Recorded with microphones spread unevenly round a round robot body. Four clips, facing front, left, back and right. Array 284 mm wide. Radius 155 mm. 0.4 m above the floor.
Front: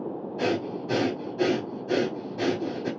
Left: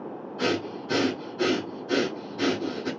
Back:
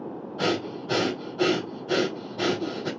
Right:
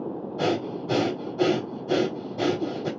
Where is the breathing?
50° right, 1.6 m.